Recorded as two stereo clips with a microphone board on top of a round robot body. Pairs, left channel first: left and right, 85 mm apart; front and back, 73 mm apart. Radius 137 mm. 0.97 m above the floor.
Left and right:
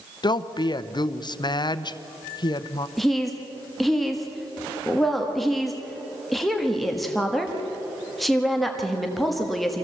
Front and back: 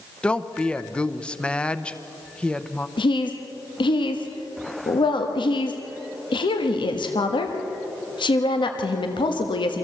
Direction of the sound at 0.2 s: 75° left.